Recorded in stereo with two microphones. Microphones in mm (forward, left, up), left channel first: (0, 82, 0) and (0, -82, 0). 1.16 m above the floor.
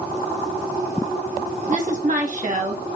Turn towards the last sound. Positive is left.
turn(degrees=-50)  # may be behind; listen again after turning